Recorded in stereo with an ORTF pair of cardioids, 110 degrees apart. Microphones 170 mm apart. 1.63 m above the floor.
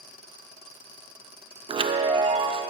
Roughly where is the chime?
Ahead right.